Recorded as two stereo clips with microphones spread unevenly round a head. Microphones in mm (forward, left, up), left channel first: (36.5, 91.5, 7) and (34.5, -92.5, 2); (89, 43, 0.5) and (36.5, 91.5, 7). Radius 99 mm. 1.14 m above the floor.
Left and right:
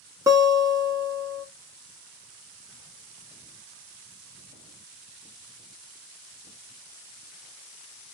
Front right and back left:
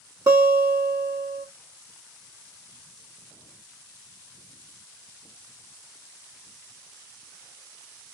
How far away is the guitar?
About 0.9 m.